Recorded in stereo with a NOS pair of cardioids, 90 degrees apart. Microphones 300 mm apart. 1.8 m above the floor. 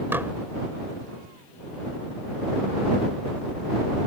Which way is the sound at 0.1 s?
5° right.